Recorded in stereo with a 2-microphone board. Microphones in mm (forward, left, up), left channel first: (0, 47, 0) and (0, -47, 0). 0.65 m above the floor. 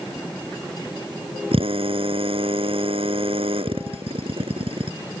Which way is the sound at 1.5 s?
80° right.